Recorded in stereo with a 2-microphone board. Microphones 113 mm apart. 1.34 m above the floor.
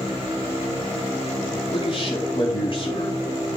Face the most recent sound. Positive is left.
turn(degrees=45)  # may be behind; listen again after turning